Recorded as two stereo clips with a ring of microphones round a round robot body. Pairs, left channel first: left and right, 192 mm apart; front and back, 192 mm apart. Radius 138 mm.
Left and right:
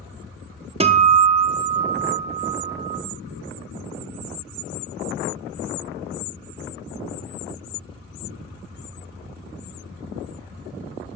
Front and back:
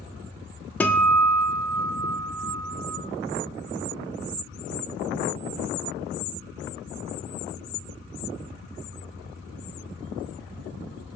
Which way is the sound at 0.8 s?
75° right.